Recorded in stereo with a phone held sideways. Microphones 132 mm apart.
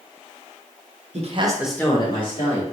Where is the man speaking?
55° right (ahead or behind), 0.8 m; by 2.6 s 55° left (ahead or behind), 1.4 m.